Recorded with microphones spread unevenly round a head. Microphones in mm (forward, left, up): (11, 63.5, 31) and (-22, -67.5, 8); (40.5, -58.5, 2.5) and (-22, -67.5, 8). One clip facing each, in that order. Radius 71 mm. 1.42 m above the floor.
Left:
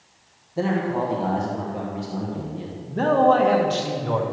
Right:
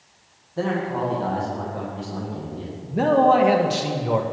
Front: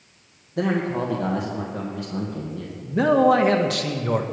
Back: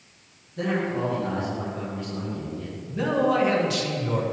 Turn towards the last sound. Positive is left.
turn(degrees=-25)